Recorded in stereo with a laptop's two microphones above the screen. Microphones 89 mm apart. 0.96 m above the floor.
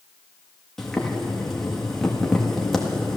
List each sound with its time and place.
0.8 s boiling: 5° left (ahead or behind), 1.6 m